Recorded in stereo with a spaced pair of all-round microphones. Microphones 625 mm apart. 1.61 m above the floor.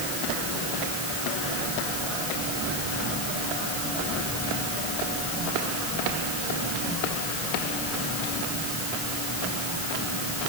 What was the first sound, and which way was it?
Only background noise.